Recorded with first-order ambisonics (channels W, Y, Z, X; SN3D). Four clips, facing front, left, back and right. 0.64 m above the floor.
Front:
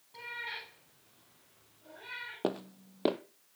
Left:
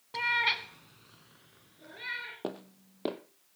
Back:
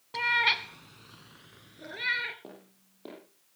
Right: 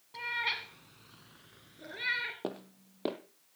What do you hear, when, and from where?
0.1 s a cat meowing: 145° left, 1.1 m; by 2.3 s 155° right, 2.5 m
2.4 s footsteps: 5° left, 0.9 m